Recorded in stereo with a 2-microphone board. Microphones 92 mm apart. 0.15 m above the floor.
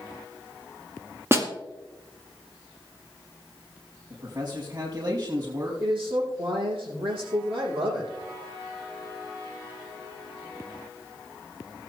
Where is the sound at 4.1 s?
55° right (ahead or behind), 5.5 m.